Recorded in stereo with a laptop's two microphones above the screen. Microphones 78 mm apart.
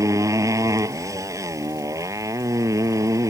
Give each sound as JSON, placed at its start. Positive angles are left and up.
{"t": 0.0, "sound": "a motorcycle", "side_deg": -40}